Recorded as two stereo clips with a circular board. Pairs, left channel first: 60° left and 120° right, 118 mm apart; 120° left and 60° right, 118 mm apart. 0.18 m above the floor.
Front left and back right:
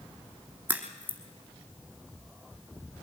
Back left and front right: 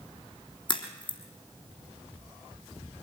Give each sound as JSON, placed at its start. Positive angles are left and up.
{"t": 0.7, "sound": "a crack", "azimuth_deg": 165, "distance_m": 3.0}